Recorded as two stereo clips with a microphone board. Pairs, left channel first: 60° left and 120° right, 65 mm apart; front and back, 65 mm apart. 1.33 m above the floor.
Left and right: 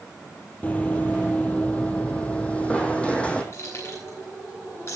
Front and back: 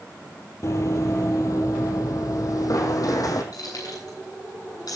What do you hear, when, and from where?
0.6 s running footsteps: 5° left, 2.0 m; by 3.4 s 10° right, 3.5 m
3.5 s keys jangling: 20° left, 9 m